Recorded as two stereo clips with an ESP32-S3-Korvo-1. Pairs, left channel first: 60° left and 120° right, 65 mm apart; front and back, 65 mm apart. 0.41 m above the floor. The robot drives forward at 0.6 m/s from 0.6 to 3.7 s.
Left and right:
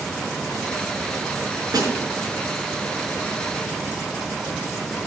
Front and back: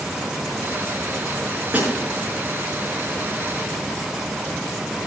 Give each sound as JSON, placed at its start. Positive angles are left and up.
{"t": 1.7, "sound": "a snare drum", "azimuth_deg": -115, "distance_m": 5.0}